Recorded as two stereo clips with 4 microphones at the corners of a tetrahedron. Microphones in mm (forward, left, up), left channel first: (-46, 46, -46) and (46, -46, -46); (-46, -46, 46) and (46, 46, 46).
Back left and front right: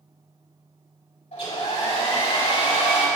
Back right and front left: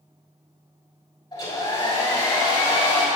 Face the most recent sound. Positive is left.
turn(degrees=165)